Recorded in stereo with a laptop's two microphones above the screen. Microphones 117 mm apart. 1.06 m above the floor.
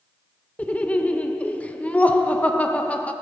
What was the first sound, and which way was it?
Laughter, 10° left (ahead or behind).